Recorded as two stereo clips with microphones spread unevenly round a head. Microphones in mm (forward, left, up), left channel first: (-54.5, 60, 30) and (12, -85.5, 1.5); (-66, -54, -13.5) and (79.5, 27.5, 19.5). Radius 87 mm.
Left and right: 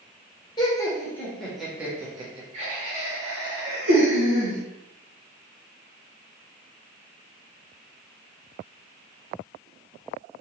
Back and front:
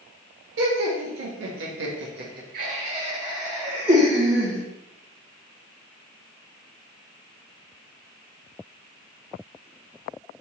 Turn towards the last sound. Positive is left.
turn(degrees=-60)